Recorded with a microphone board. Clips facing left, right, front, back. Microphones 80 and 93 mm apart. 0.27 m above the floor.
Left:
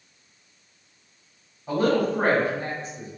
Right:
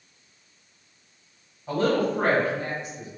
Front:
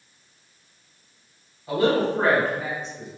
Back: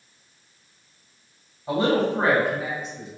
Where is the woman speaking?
165° left, 1.4 m; by 3.1 s 90° left, 1.4 m.